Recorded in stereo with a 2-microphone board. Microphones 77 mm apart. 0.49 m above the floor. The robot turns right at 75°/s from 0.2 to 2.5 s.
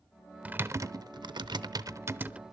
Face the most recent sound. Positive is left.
turn(degrees=-5)  # may be behind; listen again after turning